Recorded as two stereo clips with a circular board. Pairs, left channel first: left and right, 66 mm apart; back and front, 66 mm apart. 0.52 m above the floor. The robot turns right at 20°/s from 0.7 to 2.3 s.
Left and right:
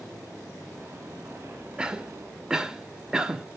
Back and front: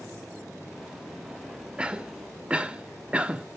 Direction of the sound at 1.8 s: 40° right.